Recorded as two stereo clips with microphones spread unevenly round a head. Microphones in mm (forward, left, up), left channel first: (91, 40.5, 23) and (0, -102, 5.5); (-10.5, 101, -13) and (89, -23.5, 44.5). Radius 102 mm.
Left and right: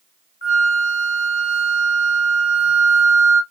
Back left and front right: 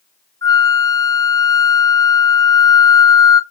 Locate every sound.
0.4 s a flute: 50° left, 1.5 m